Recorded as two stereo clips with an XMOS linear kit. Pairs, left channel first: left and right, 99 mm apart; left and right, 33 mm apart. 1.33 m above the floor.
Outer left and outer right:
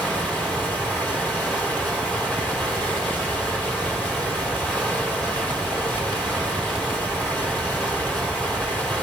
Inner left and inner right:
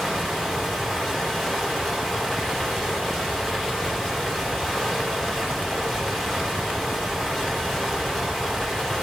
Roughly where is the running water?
Centre.